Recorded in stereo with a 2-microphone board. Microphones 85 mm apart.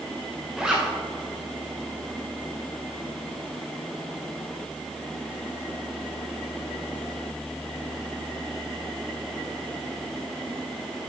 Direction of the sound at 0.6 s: 10° right (ahead or behind).